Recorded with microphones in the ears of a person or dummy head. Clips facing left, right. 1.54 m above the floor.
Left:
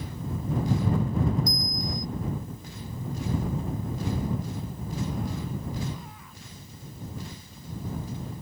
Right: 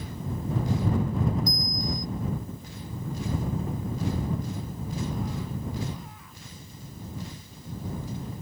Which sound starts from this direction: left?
A bell, at 1.5 s.